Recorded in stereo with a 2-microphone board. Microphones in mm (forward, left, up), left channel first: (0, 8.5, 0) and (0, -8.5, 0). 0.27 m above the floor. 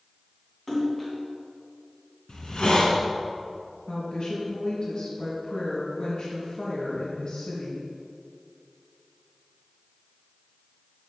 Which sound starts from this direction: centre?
A splash, at 0.7 s.